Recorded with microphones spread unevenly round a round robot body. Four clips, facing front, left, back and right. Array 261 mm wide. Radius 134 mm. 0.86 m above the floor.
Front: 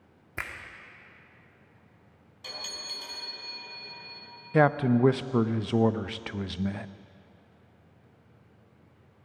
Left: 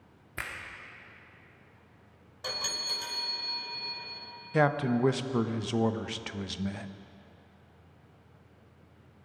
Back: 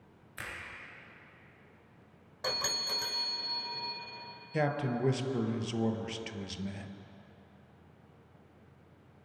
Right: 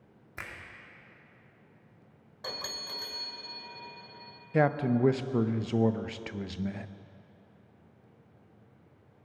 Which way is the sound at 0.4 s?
20° left.